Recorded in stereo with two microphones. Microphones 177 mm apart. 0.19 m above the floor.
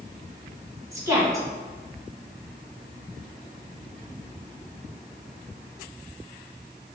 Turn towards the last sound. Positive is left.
turn(degrees=-20)  # may be behind; listen again after turning